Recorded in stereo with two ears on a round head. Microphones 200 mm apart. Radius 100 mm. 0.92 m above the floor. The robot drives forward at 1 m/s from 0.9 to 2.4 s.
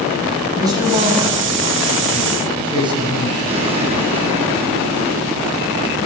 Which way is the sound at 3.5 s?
30° right (ahead or behind).